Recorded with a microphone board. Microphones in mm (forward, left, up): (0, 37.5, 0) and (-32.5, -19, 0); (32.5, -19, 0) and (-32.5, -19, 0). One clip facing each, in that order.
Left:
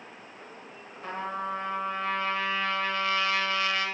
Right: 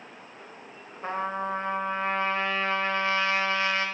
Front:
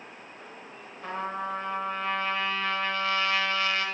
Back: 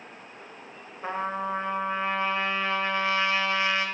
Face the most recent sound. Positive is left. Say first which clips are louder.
# right 3 dB, back 3 dB
turn(degrees=-140)